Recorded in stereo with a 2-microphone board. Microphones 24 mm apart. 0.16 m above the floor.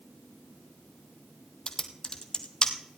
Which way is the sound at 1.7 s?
35° left (ahead or behind).